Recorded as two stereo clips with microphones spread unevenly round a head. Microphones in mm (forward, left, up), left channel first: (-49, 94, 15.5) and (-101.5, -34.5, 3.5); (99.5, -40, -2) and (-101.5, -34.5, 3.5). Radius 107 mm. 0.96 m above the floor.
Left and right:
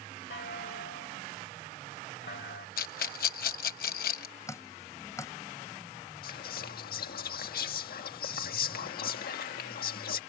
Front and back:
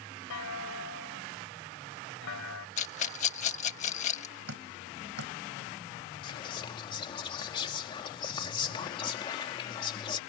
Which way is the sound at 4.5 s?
135° left.